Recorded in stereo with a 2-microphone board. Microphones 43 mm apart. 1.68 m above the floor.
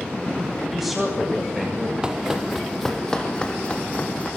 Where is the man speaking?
10° right (ahead or behind), 8.5 m.